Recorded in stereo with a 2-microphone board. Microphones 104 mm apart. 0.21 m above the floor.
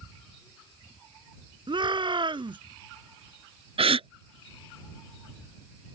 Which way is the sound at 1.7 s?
50° right (ahead or behind).